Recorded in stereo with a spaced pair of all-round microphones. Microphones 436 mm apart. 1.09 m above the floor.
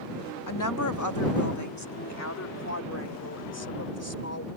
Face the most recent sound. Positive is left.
turn(degrees=35)  # may be behind; listen again after turning